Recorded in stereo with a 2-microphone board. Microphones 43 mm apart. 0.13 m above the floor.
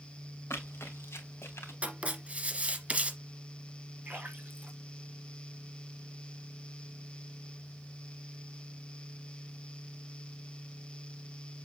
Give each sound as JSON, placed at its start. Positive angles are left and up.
{"t": 0.5, "sound": "running footsteps", "side_deg": 75, "distance_m": 2.5}
{"t": 1.8, "sound": "writing", "side_deg": -30, "distance_m": 1.6}
{"t": 4.0, "sound": "a splash", "side_deg": -40, "distance_m": 4.0}